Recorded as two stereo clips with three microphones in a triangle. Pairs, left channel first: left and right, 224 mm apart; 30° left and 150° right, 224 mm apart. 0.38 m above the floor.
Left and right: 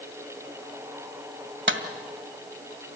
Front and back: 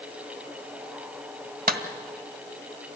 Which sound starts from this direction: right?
A clap, at 1.7 s.